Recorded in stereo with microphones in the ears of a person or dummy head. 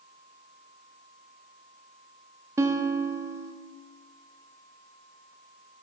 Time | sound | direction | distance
2.6 | a guitar | 20° right (ahead or behind) | 0.6 m